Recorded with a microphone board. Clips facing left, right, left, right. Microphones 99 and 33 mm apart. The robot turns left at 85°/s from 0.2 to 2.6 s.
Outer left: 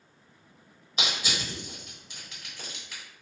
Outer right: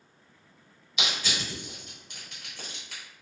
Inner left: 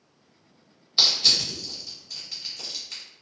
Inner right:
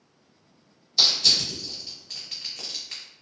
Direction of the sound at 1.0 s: 40° left (ahead or behind).